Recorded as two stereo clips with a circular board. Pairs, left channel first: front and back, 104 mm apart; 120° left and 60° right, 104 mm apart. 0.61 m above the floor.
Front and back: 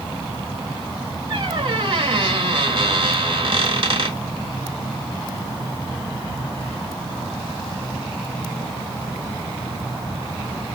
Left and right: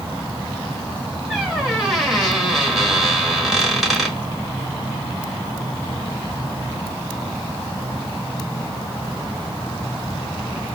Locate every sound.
1.3 s a squeak: 145° right, 1.1 m